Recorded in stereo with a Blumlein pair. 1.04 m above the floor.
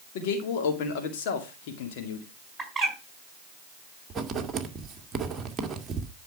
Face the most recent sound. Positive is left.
turn(degrees=-20)